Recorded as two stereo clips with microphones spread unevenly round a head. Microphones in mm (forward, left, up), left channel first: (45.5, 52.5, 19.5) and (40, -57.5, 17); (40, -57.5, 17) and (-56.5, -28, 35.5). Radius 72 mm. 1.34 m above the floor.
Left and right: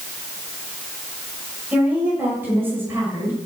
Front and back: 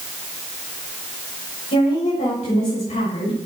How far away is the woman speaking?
About 6.5 m.